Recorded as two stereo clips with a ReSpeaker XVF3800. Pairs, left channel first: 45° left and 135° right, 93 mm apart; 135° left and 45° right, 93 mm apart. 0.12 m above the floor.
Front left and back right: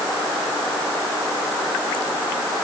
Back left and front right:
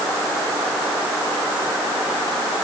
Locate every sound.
Only background noise.